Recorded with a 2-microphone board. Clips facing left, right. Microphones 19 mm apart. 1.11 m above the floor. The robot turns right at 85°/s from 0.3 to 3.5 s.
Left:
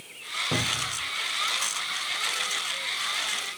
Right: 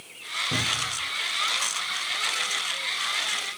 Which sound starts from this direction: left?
A cupboard door, at 0.5 s.